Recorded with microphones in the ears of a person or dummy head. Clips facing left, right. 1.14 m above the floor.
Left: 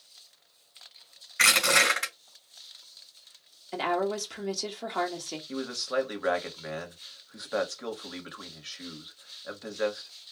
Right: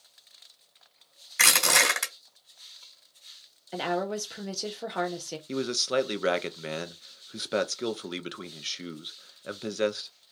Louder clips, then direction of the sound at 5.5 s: Right 4 dB; 40° right (ahead or behind).